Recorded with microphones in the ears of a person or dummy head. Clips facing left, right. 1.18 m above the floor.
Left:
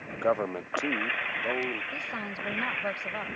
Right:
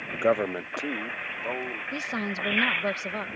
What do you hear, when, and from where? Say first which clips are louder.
0.1 s a man speaking: right 3 dB; 45° right (ahead or behind); by 1.8 s 15° left (ahead or behind)
1.9 s a woman speaking: right 6 dB; 40° right (ahead or behind)